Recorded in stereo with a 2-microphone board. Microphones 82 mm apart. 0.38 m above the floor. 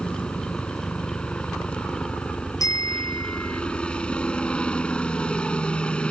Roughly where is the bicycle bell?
Left.